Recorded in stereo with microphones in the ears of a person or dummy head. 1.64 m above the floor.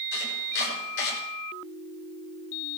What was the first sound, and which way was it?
Chopping, 65° left (ahead or behind).